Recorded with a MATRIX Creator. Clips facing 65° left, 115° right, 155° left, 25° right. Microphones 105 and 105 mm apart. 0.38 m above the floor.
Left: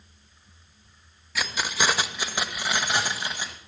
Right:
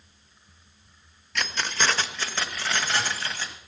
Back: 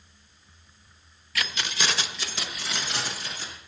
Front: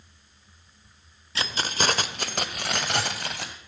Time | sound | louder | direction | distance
1.4 | keys jangling | left 1 dB, front 3 dB | 10° right | 0.5 m